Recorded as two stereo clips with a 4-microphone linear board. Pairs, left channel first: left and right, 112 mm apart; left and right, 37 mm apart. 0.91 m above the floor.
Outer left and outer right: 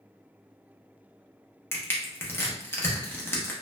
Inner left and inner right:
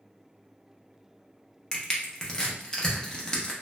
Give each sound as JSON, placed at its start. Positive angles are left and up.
{"t": 1.7, "sound": "crushing", "side_deg": 20, "distance_m": 0.6}